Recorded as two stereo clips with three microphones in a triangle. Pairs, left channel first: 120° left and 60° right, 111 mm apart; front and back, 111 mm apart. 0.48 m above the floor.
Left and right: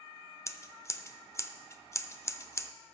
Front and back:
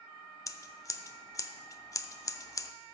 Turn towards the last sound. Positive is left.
turn(degrees=55)